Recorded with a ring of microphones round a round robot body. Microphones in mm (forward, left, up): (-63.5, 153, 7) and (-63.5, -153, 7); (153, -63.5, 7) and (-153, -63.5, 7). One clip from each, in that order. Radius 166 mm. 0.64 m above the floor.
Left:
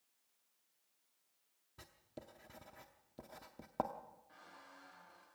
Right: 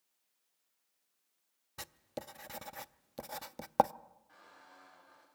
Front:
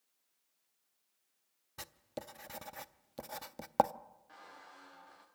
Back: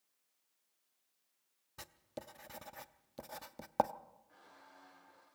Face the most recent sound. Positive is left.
turn(degrees=-10)